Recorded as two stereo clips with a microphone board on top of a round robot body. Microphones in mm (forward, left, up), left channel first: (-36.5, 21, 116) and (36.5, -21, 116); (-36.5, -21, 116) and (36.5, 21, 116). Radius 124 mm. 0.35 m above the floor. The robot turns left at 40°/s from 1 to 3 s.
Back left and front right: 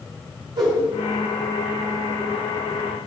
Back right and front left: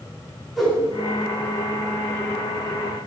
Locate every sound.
0.6 s a whoosh: 60° right, 6 m